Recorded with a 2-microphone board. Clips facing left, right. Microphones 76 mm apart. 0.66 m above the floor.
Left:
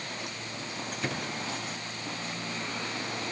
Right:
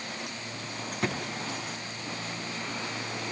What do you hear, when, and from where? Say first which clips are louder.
1.0 s a drawer: right 4 dB; 65° right (ahead or behind), 4 m